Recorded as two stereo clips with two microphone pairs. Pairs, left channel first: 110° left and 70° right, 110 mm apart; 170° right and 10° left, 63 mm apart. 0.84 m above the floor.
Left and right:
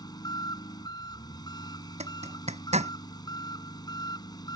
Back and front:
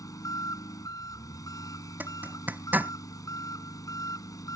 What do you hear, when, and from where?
0.0 s an engine running: 165° left
2.0 s a zipper: 50° right